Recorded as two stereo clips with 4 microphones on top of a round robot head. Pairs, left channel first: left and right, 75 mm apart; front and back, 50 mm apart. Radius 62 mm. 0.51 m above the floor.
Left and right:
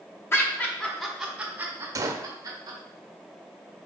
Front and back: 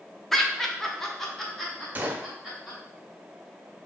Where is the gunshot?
125° right, 0.5 m.